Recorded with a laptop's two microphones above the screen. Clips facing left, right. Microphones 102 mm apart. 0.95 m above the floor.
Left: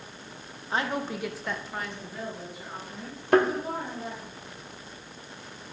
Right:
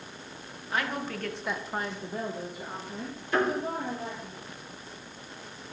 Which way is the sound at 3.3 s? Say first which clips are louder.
Left 6 dB; 65° left (ahead or behind).